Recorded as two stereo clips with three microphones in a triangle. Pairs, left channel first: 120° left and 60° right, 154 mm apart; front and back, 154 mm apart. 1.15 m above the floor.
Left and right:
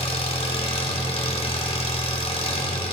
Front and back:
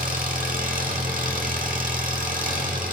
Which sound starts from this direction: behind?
An engine running, at 0.0 s.